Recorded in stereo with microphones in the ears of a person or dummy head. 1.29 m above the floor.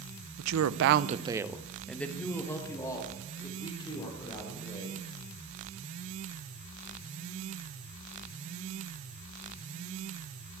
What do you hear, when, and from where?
0.4 s a woman speaking: 75° right (ahead or behind), 0.8 m; by 5.0 s 25° left (ahead or behind), 4.5 m